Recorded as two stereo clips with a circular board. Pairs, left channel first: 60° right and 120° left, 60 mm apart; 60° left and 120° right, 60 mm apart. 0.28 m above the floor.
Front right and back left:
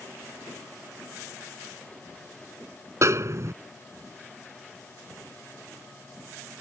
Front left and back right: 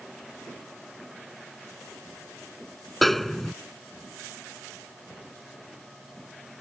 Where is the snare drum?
150° left.